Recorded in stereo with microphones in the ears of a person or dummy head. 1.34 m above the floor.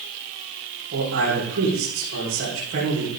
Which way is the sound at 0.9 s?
70° right (ahead or behind).